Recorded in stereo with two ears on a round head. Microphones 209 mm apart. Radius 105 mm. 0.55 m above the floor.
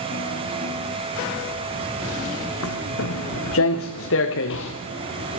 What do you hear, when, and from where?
2.6 s footsteps: 70° left (ahead or behind), 2 m; by 4.7 s 60° left (ahead or behind), 3 m